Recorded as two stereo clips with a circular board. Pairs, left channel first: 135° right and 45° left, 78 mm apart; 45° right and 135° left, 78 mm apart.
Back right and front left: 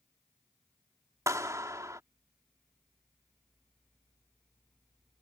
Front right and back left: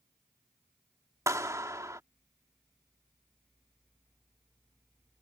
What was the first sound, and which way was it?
A clap, 90° left.